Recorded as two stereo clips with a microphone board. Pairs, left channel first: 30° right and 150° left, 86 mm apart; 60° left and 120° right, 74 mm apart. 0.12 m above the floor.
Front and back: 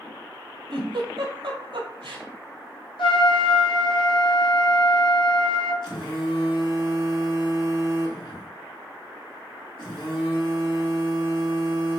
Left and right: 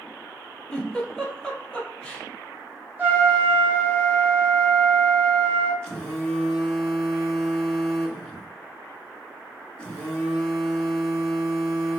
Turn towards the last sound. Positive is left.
turn(degrees=-10)